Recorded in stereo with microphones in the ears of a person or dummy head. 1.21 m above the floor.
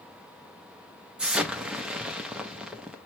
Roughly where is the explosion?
Centre.